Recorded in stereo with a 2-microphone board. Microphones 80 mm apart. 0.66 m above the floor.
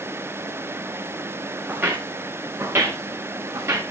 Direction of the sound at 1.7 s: 20° right (ahead or behind).